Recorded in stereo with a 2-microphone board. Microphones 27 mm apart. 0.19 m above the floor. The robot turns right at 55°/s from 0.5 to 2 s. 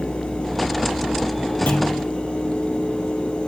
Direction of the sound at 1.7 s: 80° left.